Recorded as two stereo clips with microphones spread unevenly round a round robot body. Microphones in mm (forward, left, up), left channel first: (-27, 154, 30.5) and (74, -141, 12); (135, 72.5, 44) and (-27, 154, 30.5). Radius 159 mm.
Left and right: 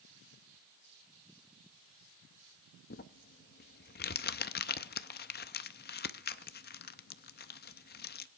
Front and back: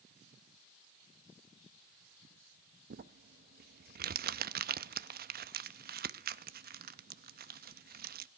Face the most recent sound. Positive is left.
turn(degrees=165)